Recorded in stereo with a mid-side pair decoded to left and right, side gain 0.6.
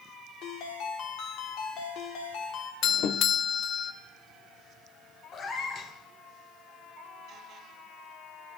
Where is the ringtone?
65° left, 2.5 m.